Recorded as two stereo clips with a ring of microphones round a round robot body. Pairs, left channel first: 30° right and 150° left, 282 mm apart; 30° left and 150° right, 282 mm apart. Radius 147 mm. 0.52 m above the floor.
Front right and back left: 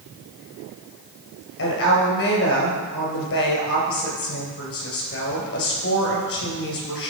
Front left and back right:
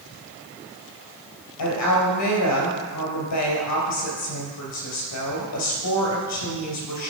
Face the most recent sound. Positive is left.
turn(degrees=5)